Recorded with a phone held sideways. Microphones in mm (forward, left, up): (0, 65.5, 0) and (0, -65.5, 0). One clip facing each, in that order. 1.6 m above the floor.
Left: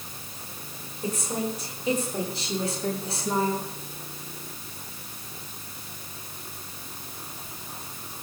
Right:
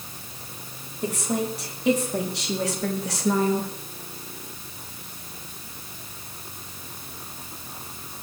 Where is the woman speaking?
75° right (ahead or behind), 4.5 m; by 3.7 s 85° right, 3 m.